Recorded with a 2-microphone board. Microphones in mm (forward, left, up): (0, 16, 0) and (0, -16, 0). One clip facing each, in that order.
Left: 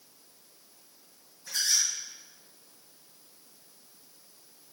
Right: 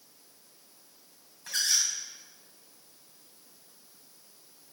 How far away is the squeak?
About 3 m.